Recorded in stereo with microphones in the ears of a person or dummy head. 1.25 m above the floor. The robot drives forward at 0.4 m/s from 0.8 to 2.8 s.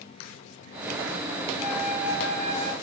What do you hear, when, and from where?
1.6 s a flute: 50° left (ahead or behind), 1.4 m; by 2.7 s 40° left (ahead or behind), 1.7 m